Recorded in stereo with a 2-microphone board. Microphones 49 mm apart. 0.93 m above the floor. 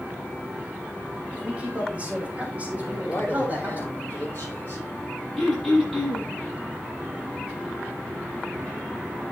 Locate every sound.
1.3 s a man speaking: 25° right (ahead or behind), 6 m; by 3.8 s 30° right (ahead or behind), 7 m
2.8 s a man speaking: 30° left (ahead or behind), 9.5 m
5.4 s throat clearing: centre (ahead or behind), 7.5 m